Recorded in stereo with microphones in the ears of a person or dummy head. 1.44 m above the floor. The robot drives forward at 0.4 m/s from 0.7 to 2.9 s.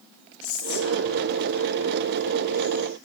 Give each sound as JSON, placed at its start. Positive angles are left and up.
{"t": 0.4, "sound": "whispering", "side_deg": 85, "distance_m": 1.1}